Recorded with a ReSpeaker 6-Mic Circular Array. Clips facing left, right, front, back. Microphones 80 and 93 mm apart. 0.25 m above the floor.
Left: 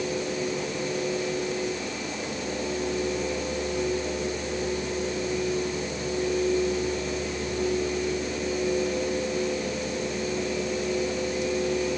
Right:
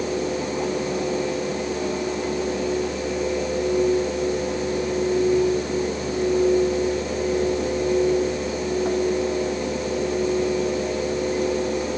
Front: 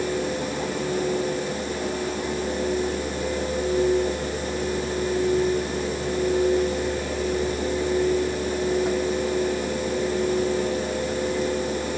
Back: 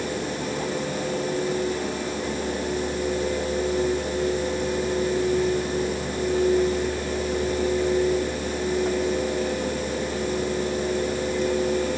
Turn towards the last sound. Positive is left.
No sound to turn to.